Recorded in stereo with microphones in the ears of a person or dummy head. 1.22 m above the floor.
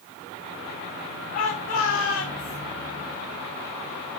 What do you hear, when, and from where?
1.3 s a shout: 75° left (ahead or behind), 2.5 m; by 2.6 s 80° left, 3.5 m